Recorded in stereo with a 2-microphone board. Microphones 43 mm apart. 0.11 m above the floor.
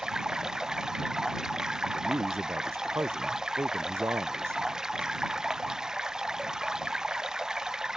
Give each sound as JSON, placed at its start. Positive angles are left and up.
{"t": 0.0, "sound": "running water", "side_deg": -15}
{"t": 1.9, "sound": "a man speaking", "side_deg": -80}